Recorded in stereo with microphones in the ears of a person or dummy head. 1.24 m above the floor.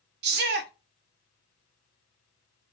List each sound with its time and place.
0.2 s a shout: 55° right (ahead or behind), 0.5 m